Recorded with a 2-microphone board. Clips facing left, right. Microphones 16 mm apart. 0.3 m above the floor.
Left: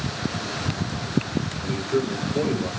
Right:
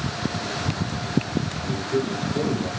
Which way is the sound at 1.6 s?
25° left (ahead or behind).